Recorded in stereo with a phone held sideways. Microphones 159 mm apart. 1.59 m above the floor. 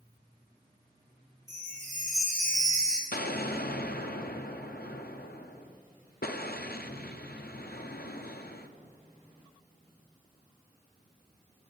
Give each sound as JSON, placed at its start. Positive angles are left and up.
{"t": 1.5, "sound": "a chime", "side_deg": -50, "distance_m": 2.5}
{"t": 3.1, "sound": "an explosion", "side_deg": 80, "distance_m": 0.7}